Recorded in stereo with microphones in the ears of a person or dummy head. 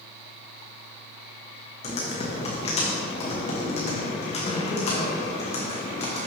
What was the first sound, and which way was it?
Typing on a keyboard, 35° left (ahead or behind).